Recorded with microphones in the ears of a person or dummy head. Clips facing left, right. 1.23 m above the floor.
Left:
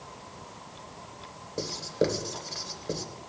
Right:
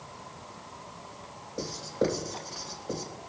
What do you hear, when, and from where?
1.6 s writing: 35° left (ahead or behind), 3 m